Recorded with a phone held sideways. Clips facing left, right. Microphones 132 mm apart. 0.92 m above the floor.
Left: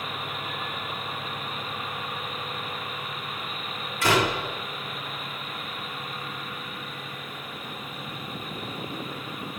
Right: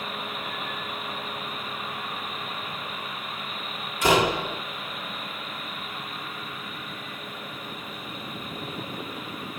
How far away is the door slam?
About 1.7 m.